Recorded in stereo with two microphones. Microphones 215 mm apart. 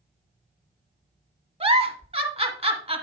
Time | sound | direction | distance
1.6 | a giggle | 30° right (ahead or behind) | 1.4 m